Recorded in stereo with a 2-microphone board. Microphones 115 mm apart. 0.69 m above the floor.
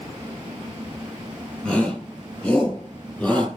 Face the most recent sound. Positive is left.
turn(degrees=10)  # may be behind; listen again after turning